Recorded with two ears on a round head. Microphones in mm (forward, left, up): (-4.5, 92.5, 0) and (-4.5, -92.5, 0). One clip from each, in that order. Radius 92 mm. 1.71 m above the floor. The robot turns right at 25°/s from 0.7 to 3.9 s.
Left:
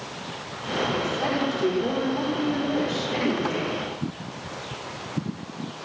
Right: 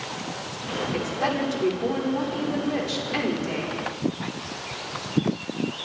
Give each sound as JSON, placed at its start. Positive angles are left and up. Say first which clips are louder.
{"t": 0.9, "sound": "a woman speaking", "louder": "even", "azimuth_deg": -155, "distance_m": 5.5}